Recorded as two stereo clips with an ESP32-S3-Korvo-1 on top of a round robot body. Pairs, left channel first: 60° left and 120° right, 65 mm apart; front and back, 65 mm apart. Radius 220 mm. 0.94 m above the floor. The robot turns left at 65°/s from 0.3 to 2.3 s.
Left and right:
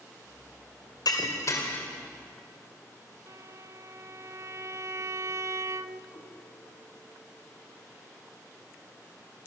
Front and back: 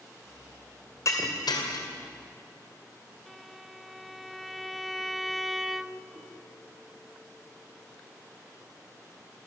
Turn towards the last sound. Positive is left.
turn(degrees=115)